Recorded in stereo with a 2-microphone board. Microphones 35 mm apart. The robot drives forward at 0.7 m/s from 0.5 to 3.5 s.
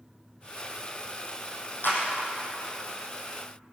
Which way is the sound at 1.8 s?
80° left.